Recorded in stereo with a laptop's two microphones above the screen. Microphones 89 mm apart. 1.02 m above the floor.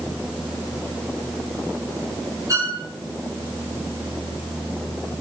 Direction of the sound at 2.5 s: 40° right (ahead or behind).